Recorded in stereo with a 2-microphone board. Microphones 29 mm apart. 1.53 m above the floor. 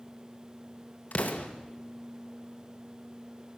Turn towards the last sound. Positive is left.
turn(degrees=65)  # may be behind; listen again after turning